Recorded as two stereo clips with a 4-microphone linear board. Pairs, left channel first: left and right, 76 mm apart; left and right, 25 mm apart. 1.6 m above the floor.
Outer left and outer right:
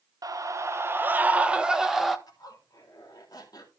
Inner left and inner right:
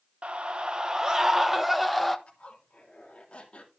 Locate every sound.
0.2 s a scream: 55° right (ahead or behind), 1.0 m; by 2.2 s centre (ahead or behind), 1.4 m
2.3 s a zipper: 55° left (ahead or behind), 3.5 m